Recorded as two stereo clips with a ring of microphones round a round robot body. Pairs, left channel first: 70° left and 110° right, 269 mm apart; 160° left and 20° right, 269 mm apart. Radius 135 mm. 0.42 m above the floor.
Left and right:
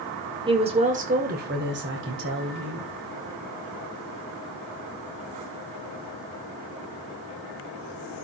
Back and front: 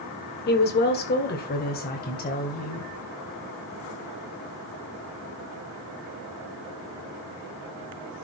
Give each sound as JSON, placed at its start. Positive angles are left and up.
{"t": 0.5, "sound": "a woman speaking", "azimuth_deg": -175, "distance_m": 1.6}